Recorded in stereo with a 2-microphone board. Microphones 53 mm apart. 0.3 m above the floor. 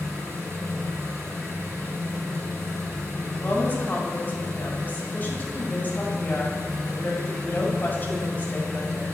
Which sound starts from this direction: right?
An engine running, at 0.0 s.